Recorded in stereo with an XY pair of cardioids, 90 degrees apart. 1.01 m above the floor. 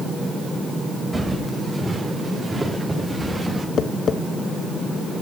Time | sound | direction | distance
1.1 | footsteps | 20° right | 7.5 m
3.8 | tapping | 65° left | 1.4 m